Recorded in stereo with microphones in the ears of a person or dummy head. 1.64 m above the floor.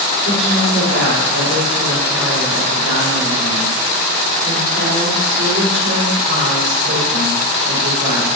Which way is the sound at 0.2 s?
70° right (ahead or behind).